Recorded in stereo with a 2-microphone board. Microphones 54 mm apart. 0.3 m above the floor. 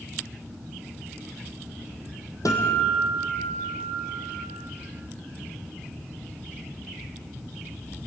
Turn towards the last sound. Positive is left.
turn(degrees=85)